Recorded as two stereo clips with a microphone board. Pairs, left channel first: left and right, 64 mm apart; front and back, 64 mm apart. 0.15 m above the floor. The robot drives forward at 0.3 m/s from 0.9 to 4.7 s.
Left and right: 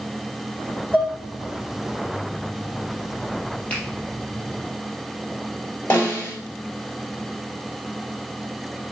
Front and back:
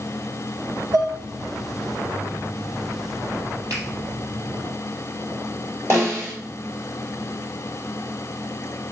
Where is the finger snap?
155° left, 3.5 m.